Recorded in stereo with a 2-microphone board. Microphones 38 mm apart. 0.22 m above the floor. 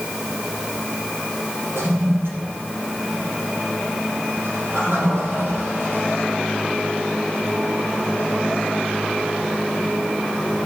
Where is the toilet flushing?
75° right (ahead or behind), 8 m.